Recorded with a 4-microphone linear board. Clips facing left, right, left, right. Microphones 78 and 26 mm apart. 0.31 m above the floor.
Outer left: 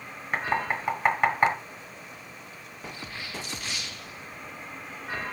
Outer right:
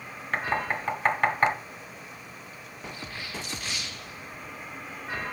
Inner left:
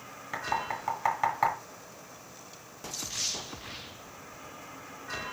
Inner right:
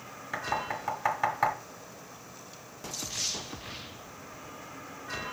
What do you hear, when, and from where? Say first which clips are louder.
0.3 s knocking: outer left 1 dB, even; 10° left (ahead or behind), 2.5 m